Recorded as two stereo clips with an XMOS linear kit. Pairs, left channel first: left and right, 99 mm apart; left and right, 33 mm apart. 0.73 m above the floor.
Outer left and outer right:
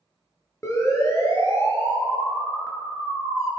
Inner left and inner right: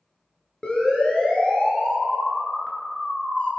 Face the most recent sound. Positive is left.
turn(degrees=35)  # may be behind; listen again after turning